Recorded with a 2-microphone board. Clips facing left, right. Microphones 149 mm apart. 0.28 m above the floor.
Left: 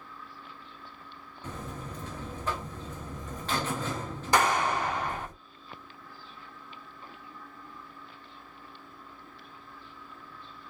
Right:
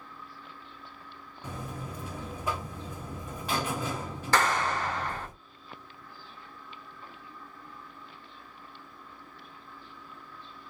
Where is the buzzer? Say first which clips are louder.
Even; 10° right (ahead or behind), 0.7 m.